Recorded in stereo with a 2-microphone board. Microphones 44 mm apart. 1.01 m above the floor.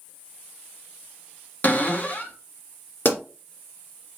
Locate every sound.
1.6 s a cupboard door: 40° left (ahead or behind), 0.8 m
3.0 s a pop: 50° left (ahead or behind), 2 m